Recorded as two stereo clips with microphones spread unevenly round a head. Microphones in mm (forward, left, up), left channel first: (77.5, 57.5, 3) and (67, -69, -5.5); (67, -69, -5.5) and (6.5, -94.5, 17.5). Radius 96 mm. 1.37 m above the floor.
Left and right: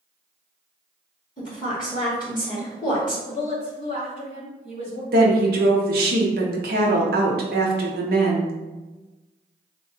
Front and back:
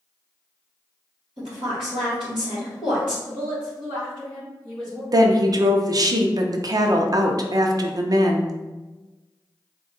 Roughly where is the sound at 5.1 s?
Behind right.